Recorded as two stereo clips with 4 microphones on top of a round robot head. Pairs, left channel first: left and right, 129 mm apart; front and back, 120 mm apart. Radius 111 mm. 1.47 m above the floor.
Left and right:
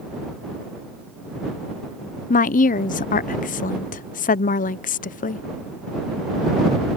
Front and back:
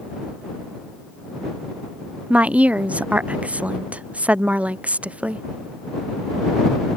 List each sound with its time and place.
2.3 s a woman speaking: 100° left